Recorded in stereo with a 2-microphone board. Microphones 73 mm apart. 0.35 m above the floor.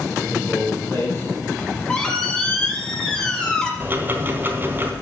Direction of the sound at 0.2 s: 35° left (ahead or behind).